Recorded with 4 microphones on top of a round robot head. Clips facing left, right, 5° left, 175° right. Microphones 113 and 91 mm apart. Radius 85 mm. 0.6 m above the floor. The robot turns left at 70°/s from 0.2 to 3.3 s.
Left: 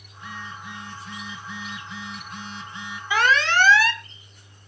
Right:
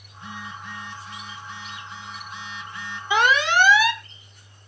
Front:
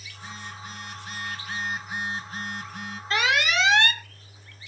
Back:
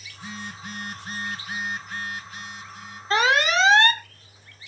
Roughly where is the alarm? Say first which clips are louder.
Right 1 dB, back 4 dB; behind right.